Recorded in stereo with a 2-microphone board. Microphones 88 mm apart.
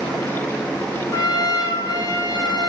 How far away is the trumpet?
About 4 m.